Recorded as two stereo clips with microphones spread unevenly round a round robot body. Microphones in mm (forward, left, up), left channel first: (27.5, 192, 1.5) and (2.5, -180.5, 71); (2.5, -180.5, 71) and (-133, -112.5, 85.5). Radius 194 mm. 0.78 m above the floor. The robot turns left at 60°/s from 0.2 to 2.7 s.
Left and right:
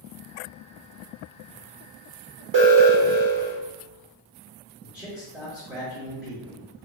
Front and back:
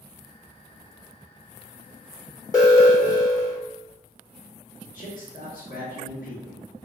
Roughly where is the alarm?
Ahead right.